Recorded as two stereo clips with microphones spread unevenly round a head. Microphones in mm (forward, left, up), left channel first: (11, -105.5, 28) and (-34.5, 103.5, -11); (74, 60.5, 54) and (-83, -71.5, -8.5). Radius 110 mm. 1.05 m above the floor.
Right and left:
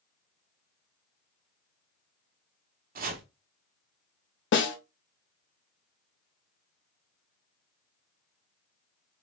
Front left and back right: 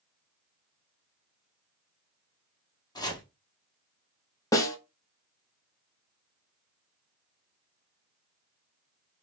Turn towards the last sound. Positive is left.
turn(degrees=-45)